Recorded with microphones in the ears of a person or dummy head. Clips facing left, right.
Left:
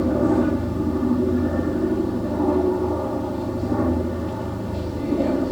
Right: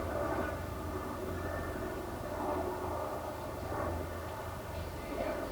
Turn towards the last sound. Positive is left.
turn(degrees=65)  # may be behind; listen again after turning